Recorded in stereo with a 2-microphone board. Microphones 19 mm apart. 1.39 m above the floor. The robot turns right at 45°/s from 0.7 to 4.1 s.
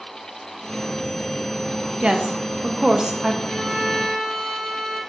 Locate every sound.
2.0 s a woman speaking: 85° right, 0.5 m; by 3.3 s 25° right, 0.5 m
3.4 s a violin: 15° left (ahead or behind), 2 m; by 5.0 s 40° left (ahead or behind), 2 m